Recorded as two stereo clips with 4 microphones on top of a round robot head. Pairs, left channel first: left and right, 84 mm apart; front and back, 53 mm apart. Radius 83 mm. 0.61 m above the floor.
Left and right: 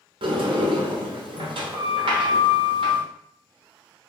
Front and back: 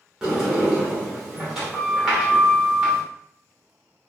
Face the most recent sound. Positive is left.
turn(degrees=-95)